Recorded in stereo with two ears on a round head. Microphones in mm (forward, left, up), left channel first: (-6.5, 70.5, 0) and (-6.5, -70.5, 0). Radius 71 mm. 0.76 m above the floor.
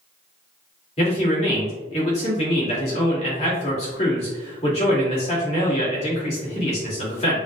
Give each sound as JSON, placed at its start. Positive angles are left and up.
{"t": 1.0, "sound": "a man speaking", "side_deg": 40, "distance_m": 2.0}